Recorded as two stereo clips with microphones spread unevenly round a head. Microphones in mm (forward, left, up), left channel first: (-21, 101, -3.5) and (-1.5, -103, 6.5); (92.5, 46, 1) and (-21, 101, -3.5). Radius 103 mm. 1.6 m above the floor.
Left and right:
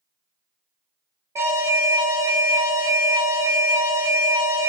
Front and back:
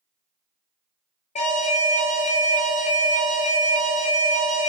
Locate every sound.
1.4 s an alarm: 10° right, 0.5 m